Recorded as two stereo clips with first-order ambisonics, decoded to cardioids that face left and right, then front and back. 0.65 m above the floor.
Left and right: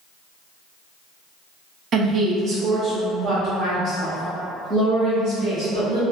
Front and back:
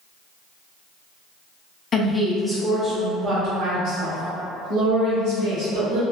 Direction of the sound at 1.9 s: 50° right.